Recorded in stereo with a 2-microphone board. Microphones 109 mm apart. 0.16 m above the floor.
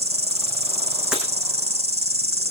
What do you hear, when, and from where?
0.0 s an insect: 70° right (ahead or behind), 1.3 m
1.1 s breaking glass: 5° right (ahead or behind), 5 m